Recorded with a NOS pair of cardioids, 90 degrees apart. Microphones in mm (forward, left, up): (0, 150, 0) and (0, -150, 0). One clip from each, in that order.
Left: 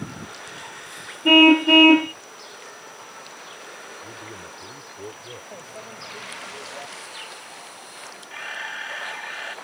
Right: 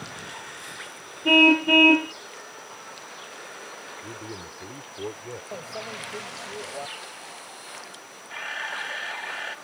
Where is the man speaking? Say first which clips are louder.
Even; 35° right.